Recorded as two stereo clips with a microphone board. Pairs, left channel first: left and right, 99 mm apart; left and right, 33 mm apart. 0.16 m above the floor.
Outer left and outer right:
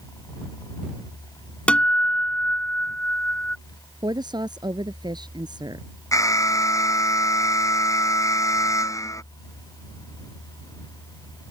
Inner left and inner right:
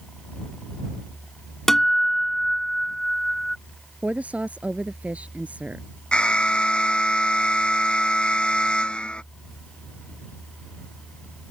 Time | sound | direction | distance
1.7 | a guitar | 10° left (ahead or behind) | ?
4.0 | a woman speaking | 50° right (ahead or behind) | ?
6.1 | an alarm | 35° left (ahead or behind) | ?